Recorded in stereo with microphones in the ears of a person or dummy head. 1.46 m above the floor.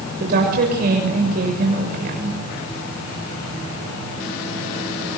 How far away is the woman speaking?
About 6.5 m.